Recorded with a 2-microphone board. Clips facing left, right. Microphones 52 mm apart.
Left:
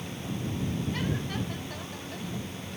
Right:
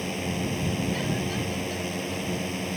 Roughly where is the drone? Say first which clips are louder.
Right 6 dB; right.